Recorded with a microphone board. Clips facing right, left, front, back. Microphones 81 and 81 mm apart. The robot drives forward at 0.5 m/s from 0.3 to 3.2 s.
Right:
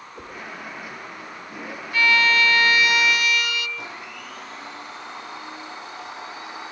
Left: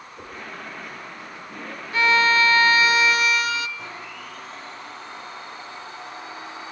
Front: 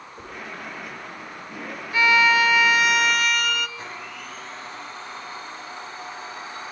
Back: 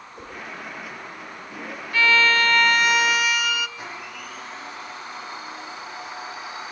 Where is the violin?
55° left, 1.6 m; by 3.7 s 100° left, 1.5 m.